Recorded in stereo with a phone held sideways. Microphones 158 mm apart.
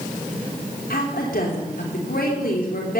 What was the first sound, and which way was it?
A woman speaking, 75° left (ahead or behind).